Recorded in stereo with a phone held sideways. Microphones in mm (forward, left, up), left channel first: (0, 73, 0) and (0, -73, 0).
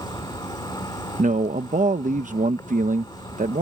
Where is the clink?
I don't hear a clink.